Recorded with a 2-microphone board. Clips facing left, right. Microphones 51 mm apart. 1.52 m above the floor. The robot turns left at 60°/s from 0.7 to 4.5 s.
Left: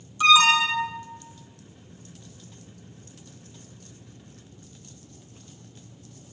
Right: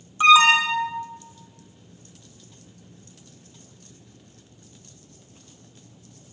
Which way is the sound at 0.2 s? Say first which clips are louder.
Right 3 dB; 25° right (ahead or behind).